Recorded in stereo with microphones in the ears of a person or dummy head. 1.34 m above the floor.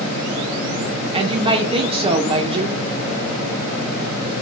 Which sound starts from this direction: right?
A woman speaking, at 1.1 s.